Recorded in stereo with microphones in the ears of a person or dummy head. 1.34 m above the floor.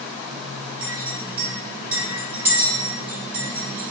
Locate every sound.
0.8 s a clink: 10° right (ahead or behind), 1.4 m